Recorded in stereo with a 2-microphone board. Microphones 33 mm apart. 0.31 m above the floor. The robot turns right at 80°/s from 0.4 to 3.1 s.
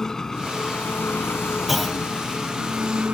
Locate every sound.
0.0 s an engine running: 20° left; by 3.1 s 125° right
1.7 s a clunk: 5° right (ahead or behind); by 2.0 s 20° left (ahead or behind)